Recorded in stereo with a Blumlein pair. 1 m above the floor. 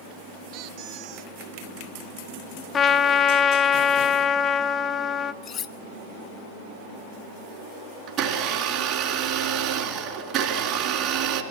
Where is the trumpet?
20° left, 0.8 m.